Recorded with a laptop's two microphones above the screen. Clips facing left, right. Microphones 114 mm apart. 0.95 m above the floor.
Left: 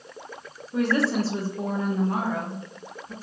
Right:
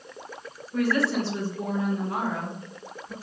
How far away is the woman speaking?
About 0.7 m.